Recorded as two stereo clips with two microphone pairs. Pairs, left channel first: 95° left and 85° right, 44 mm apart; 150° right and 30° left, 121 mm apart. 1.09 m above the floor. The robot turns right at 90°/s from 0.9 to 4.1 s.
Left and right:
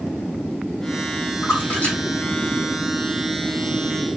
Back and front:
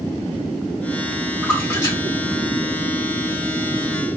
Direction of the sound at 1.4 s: 110° left.